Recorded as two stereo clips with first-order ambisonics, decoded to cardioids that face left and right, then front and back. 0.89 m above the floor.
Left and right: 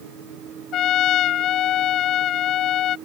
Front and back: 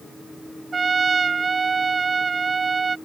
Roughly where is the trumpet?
Left.